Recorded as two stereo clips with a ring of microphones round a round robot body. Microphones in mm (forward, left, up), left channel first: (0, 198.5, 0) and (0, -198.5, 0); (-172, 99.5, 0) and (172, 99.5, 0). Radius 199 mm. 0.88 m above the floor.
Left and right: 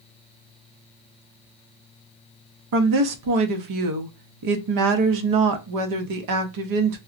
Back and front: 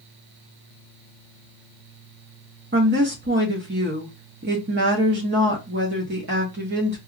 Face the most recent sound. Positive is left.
turn(degrees=-60)